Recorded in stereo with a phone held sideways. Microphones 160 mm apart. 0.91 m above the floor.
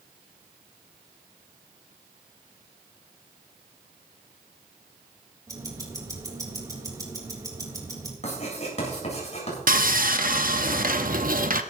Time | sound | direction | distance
5.5 | ticking | 20° right (ahead or behind) | 3.5 m
8.2 | writing | 45° left (ahead or behind) | 7.5 m
9.7 | sawing | 60° right (ahead or behind) | 0.8 m